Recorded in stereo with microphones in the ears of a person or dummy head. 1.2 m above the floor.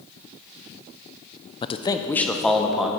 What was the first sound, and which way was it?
A man speaking, 25° left (ahead or behind).